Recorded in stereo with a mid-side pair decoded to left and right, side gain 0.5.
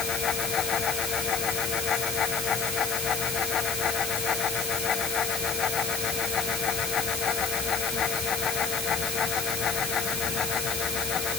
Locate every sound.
0.0 s a fan: 50° left